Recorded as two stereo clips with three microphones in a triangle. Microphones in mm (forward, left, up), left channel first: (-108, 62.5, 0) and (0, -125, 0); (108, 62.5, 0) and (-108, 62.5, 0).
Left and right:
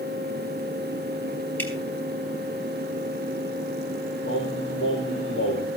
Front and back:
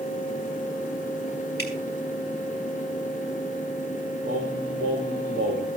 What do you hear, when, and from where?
1.6 s dripping: 40° left, 4 m
4.2 s singing: 140° left, 6 m